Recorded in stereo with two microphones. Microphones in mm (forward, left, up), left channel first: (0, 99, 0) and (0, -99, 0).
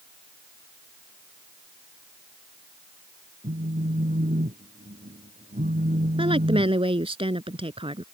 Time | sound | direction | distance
3.4 | a phone buzzing | 45° right (ahead or behind) | ?
6.2 | a woman speaking | 30° right (ahead or behind) | ?